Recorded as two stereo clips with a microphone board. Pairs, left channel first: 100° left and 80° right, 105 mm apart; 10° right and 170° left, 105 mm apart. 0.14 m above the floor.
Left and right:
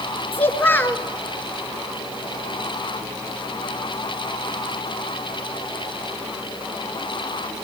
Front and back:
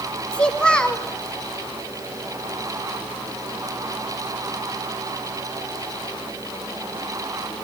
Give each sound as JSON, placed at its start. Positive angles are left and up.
{"t": 0.3, "sound": "a child speaking", "azimuth_deg": 60, "distance_m": 1.2}